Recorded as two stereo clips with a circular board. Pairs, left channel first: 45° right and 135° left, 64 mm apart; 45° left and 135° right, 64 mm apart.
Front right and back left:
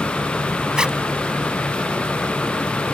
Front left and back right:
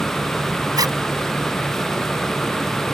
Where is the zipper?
150° right.